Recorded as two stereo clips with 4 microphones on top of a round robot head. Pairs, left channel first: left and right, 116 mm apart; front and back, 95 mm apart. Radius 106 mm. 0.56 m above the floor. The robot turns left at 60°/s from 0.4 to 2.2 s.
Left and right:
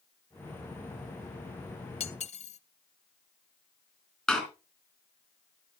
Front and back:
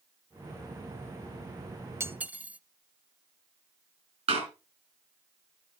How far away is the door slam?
About 4 m.